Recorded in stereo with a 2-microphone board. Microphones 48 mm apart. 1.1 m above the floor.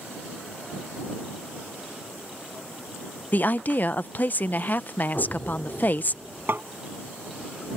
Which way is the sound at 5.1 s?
30° left (ahead or behind).